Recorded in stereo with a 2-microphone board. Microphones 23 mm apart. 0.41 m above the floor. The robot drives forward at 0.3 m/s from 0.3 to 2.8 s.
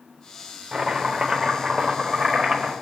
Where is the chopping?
20° right (ahead or behind), 1.0 m; by 2.7 s 15° right (ahead or behind), 1.4 m.